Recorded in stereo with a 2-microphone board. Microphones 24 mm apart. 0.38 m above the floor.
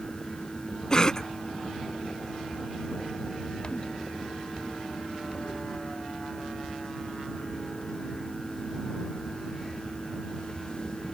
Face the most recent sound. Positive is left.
turn(degrees=30)  # may be behind; listen again after turning